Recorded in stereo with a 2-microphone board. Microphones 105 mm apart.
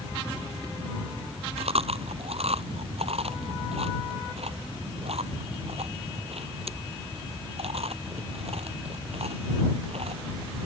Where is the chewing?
70° right (ahead or behind).